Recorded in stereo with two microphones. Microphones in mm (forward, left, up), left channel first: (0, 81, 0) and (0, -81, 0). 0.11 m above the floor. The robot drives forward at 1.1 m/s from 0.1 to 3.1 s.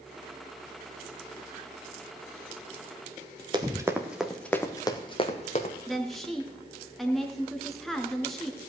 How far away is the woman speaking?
About 1.3 m.